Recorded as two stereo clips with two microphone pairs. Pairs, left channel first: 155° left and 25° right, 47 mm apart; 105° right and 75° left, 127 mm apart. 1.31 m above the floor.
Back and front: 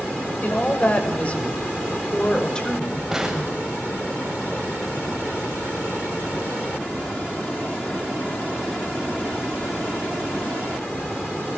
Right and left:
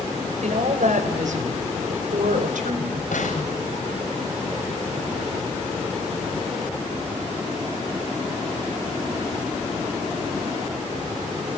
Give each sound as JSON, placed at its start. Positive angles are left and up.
{"t": 0.4, "sound": "a woman speaking", "azimuth_deg": 100, "distance_m": 5.5}
{"t": 3.1, "sound": "an explosion", "azimuth_deg": -110, "distance_m": 8.0}